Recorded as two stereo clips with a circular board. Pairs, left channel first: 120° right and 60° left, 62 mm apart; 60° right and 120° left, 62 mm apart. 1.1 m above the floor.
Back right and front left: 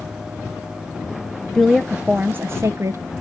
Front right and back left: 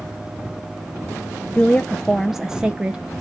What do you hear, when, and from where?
1.6 s a woman speaking: 50° right, 0.5 m; by 3.0 s 55° left, 0.8 m